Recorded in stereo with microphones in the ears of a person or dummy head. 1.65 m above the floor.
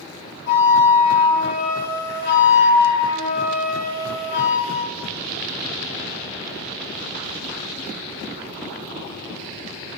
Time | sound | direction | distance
0.5 | a flute | 60° left (ahead or behind) | 5 m